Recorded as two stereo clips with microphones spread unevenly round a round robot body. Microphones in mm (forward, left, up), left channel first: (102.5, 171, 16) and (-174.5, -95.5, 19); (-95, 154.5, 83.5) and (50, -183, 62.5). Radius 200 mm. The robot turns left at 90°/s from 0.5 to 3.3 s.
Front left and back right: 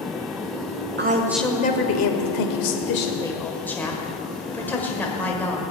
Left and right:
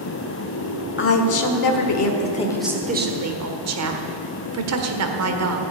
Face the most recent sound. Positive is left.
turn(degrees=-40)